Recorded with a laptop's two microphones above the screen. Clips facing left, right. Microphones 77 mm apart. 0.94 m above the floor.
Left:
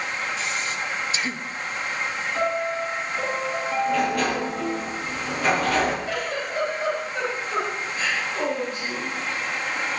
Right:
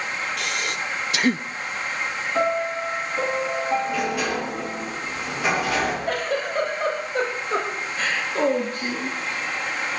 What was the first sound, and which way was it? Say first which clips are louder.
Breathing: right 1 dB; 65° right (ahead or behind).